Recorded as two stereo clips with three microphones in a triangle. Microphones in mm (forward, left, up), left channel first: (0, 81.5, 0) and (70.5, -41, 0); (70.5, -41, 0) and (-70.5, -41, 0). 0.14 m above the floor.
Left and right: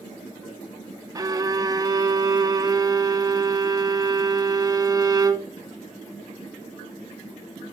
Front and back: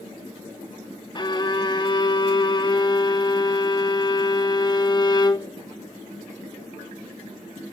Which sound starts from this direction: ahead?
A violin, at 1.1 s.